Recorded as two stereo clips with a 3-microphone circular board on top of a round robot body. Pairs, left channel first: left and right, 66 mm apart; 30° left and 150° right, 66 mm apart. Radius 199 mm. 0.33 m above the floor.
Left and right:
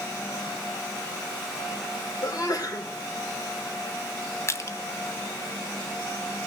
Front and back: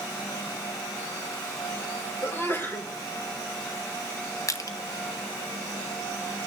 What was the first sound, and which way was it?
A sneeze, 80° left.